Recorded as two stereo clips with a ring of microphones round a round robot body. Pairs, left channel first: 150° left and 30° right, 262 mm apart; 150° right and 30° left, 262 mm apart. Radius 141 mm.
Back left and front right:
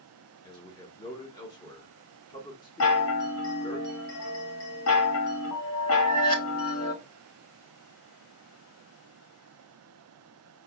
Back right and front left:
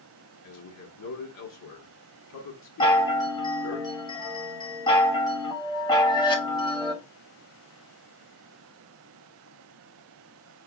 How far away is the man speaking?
About 1.5 m.